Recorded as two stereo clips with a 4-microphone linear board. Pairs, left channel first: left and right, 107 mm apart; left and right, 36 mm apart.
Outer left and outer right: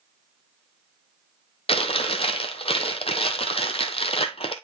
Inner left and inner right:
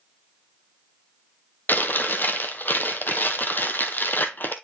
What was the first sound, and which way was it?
Chewing, 65° left (ahead or behind).